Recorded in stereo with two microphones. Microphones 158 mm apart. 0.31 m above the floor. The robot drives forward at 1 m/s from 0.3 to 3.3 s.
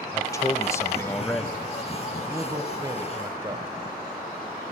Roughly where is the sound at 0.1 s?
Left.